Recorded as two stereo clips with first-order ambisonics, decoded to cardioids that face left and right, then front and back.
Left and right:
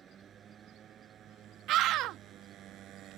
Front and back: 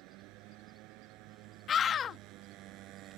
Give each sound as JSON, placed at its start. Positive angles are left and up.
{"t": 0.0, "sound": "a motorcycle", "azimuth_deg": -155}
{"t": 1.7, "sound": "a scream", "azimuth_deg": -60}